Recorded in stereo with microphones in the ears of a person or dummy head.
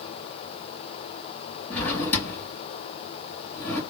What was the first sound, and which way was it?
A drawer, 5° left (ahead or behind).